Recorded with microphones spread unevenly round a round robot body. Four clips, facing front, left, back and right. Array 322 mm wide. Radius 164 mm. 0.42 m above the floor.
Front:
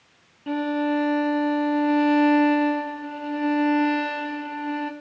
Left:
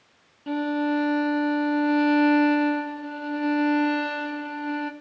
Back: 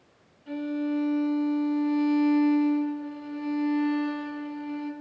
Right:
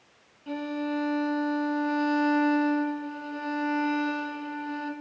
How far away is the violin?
About 1.4 m.